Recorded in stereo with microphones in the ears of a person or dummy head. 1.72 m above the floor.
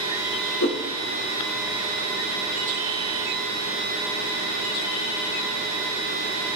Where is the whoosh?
60° left (ahead or behind), 4 m.